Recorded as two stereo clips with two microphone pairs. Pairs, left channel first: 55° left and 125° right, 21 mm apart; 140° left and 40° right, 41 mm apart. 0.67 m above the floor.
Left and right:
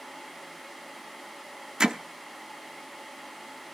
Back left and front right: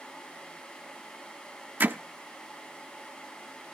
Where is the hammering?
70° right, 0.8 m.